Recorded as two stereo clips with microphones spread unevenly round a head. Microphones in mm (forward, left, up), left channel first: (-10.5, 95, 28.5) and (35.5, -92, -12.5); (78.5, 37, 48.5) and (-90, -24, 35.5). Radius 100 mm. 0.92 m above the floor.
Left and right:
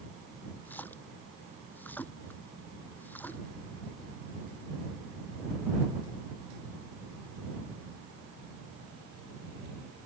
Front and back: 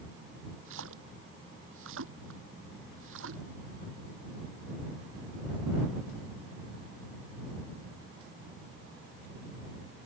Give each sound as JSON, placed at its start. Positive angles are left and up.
{"t": 0.7, "sound": "a splash", "azimuth_deg": -175}